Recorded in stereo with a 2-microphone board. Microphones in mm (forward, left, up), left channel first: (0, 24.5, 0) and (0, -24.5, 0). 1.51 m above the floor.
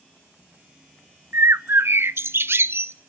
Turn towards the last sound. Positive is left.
turn(degrees=-55)  # may be behind; listen again after turning